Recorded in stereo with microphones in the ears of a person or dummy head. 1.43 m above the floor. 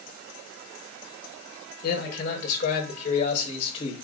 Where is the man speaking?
50° left (ahead or behind), 5 m; by 3.9 s 30° left (ahead or behind), 4.5 m.